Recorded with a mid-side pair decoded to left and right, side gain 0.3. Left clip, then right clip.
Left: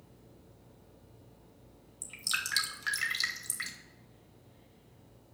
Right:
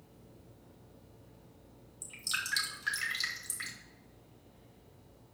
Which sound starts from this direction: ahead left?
Dripping, at 2.0 s.